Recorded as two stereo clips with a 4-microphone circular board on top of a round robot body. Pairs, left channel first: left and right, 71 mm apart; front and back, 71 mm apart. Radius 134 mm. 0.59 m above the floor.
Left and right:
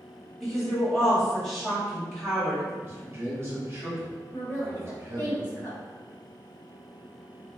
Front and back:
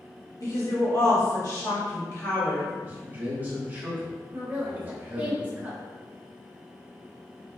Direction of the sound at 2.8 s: 130° right.